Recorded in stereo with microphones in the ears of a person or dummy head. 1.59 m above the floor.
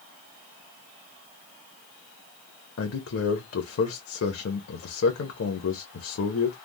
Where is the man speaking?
70° left (ahead or behind), 0.7 m.